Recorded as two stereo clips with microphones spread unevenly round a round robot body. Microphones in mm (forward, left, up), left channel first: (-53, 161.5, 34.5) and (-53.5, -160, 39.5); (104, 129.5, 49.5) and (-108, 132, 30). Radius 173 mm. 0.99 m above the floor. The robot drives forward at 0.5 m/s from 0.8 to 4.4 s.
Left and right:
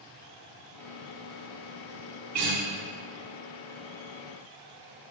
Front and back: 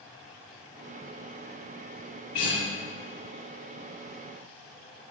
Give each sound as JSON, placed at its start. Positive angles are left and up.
{"t": 2.3, "sound": "a guitar", "azimuth_deg": -45, "distance_m": 3.5}